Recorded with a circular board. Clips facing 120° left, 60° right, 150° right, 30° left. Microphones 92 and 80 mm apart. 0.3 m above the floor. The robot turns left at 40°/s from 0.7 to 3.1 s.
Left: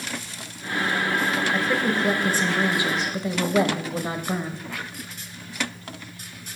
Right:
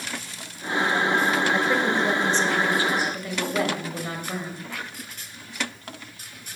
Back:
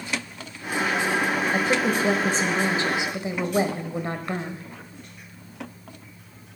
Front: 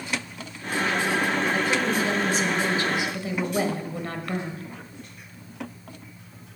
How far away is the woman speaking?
About 1.0 m.